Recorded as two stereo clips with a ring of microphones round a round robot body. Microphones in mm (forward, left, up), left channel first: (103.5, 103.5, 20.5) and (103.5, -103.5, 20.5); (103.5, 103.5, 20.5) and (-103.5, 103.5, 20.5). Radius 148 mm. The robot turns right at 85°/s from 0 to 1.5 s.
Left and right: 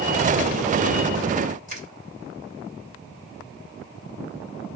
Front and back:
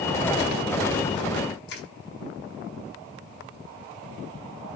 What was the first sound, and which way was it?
Crushing, 40° right.